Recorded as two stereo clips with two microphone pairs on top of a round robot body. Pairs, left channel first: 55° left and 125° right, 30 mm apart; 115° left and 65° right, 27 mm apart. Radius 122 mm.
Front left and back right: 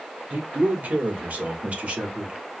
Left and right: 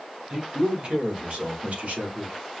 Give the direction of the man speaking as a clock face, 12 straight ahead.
4 o'clock.